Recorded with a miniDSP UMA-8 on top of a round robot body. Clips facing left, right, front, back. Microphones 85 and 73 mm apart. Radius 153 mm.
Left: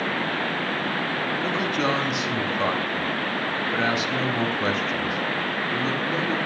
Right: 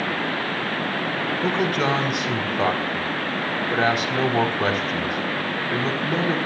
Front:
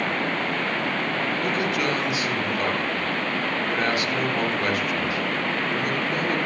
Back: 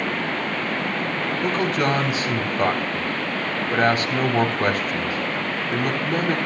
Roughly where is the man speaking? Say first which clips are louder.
Right 4 dB, back 5 dB; behind right.